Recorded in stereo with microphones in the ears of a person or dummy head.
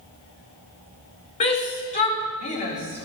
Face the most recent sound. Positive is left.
turn(degrees=35)  # may be behind; listen again after turning